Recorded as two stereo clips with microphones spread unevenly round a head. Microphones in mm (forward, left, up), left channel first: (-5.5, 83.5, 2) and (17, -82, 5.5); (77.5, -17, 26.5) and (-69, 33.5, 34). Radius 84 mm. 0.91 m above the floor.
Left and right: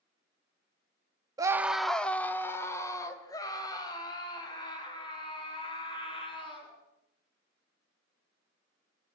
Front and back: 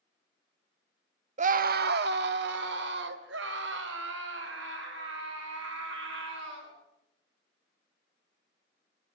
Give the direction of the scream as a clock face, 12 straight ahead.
5 o'clock.